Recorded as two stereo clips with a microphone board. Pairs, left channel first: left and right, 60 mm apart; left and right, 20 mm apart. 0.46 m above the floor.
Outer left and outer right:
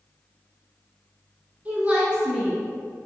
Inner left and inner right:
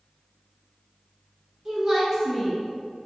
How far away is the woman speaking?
About 0.9 m.